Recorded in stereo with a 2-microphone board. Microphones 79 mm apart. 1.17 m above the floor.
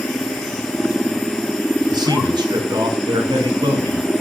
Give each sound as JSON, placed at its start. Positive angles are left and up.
{"t": 1.9, "sound": "a man speaking", "side_deg": -65, "distance_m": 5.0}